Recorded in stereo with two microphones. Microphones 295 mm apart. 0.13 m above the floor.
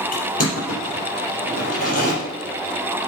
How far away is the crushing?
About 4 m.